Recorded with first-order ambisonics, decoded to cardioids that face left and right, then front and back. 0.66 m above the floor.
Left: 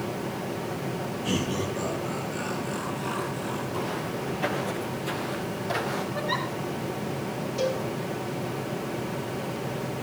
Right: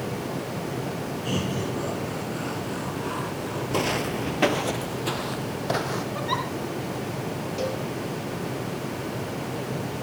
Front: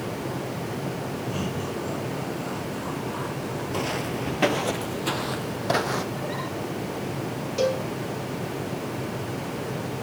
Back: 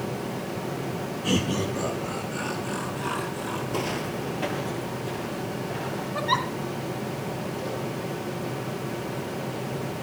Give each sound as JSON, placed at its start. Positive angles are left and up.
{"t": 1.2, "sound": "laughter", "azimuth_deg": -175, "distance_m": 8.5}
{"t": 3.7, "sound": "footsteps", "azimuth_deg": -95, "distance_m": 0.9}
{"t": 6.2, "sound": "a giggle", "azimuth_deg": -165, "distance_m": 2.5}
{"t": 7.6, "sound": "a cowbell", "azimuth_deg": -5, "distance_m": 3.0}